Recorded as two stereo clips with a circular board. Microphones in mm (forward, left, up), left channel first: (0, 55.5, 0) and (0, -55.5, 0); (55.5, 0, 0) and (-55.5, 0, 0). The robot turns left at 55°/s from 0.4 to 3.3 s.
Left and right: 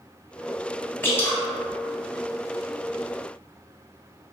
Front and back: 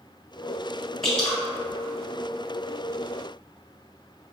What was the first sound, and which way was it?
Dripping, 80° left.